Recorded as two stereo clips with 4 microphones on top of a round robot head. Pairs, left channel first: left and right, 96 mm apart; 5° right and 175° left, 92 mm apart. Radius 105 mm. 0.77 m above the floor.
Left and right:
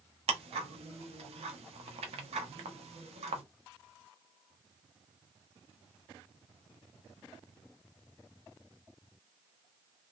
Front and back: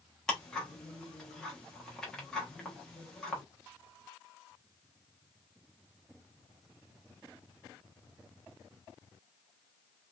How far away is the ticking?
About 0.7 m.